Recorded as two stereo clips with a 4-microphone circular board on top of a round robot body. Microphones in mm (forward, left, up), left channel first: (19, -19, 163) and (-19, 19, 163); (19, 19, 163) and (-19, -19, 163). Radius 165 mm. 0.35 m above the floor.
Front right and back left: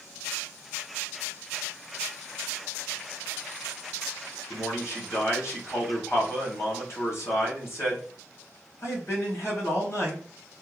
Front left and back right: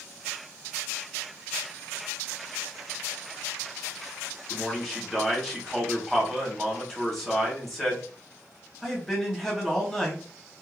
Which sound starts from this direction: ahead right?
A man speaking, at 4.5 s.